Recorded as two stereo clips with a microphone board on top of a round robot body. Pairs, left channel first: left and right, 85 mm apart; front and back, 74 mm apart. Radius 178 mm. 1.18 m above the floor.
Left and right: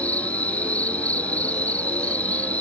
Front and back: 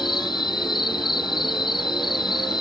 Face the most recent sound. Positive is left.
turn(degrees=15)